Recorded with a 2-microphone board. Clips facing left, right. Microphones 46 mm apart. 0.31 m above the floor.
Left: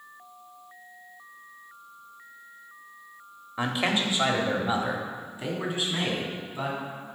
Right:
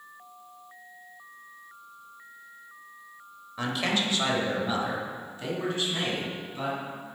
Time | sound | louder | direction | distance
3.6 | a man speaking | left 2 dB | 20° left (ahead or behind) | 0.9 m